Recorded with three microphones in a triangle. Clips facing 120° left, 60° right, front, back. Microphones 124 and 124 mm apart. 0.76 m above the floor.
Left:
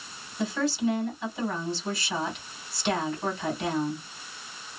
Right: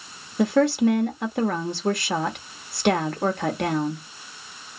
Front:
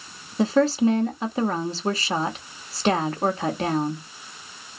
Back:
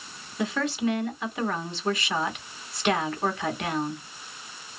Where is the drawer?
No drawer in this recording.